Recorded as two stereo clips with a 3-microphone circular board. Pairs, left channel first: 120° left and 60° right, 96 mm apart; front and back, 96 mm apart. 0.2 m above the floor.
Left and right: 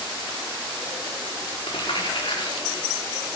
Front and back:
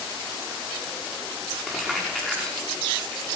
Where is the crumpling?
90° left, 4.5 m.